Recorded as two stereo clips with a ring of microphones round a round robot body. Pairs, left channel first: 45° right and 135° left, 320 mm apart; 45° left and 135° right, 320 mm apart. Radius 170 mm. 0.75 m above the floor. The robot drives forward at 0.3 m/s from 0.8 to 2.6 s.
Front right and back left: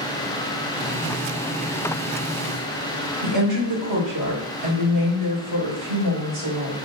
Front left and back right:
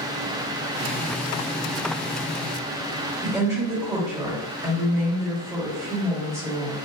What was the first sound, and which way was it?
A woman speaking, 145° left.